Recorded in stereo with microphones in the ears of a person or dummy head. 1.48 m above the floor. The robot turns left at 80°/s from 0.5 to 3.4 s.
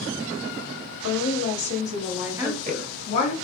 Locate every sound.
1.0 s a woman speaking: 90° left, 1.1 m; by 2.9 s 60° right, 1.1 m
2.4 s a woman speaking: 20° right (ahead or behind), 1.9 m; by 3.3 s 60° left (ahead or behind), 1.9 m